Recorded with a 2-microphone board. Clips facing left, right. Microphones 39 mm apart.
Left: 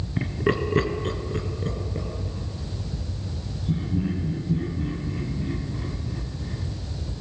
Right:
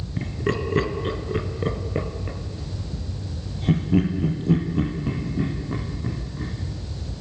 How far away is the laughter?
About 2.5 m.